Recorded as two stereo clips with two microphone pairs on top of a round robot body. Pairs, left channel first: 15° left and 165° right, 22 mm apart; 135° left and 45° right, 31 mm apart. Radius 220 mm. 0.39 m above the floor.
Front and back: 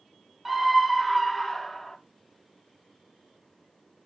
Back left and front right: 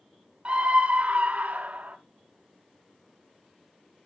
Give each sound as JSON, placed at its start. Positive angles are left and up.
{"t": 0.5, "sound": "a scream", "azimuth_deg": -80, "distance_m": 2.5}